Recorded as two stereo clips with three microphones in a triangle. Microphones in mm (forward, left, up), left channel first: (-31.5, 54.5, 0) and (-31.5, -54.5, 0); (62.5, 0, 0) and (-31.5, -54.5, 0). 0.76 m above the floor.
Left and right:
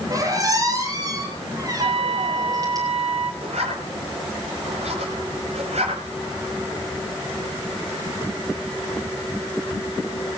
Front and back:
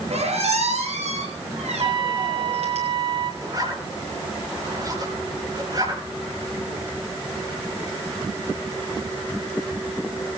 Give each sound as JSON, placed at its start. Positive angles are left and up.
{"t": 0.1, "sound": "a squeak", "azimuth_deg": -145, "distance_m": 8.0}
{"t": 1.8, "sound": "a trumpet", "azimuth_deg": -110, "distance_m": 2.5}
{"t": 3.4, "sound": "a zipper", "azimuth_deg": -95, "distance_m": 9.5}